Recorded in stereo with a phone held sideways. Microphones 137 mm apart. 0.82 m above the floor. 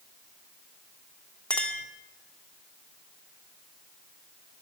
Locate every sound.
1.5 s a clink: 10° left (ahead or behind), 1.2 m